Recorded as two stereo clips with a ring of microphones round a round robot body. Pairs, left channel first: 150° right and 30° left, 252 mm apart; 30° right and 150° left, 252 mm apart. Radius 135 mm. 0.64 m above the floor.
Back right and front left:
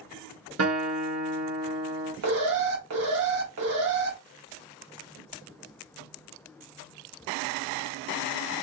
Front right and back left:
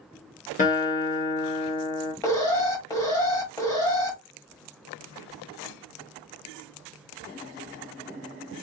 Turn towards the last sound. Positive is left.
turn(degrees=45)